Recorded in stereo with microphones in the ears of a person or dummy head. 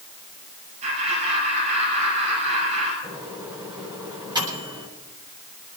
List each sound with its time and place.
0.8 s laughter: 40° right (ahead or behind), 7.5 m
3.0 s a microwave: 25° right (ahead or behind), 7.5 m